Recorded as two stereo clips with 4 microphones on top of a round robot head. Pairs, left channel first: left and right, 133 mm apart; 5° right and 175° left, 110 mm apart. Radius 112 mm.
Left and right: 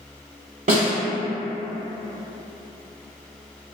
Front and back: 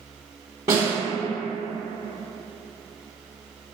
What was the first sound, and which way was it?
A snare drum, 120° right.